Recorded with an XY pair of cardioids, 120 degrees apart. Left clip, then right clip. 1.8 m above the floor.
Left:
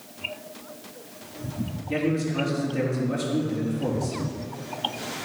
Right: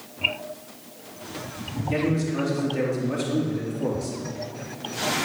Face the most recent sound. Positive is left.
turn(degrees=-5)